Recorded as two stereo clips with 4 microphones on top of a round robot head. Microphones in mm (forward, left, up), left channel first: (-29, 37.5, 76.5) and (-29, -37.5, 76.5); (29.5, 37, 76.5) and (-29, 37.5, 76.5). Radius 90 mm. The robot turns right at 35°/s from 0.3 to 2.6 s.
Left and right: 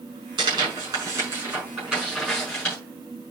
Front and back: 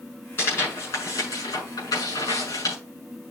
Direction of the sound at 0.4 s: 65° right.